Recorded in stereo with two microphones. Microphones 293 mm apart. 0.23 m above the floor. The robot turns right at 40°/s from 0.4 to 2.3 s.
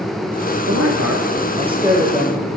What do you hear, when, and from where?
0.7 s a man speaking: 60° right, 6 m; by 2.5 s 5° left, 6 m